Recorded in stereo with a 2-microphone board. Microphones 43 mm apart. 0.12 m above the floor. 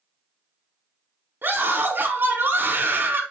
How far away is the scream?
About 3.5 m.